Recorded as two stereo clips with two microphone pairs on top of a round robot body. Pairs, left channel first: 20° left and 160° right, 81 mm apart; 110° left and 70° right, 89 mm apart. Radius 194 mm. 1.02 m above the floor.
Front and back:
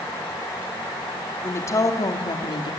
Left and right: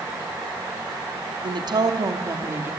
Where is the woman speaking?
40° right, 2.5 m; by 2.7 s straight ahead, 2.5 m.